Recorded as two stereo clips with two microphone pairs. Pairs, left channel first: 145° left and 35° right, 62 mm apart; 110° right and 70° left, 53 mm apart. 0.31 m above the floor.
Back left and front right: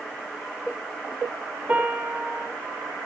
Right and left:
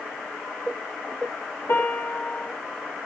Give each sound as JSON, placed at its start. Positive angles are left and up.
{"t": 1.7, "sound": "a piano", "azimuth_deg": -110, "distance_m": 2.5}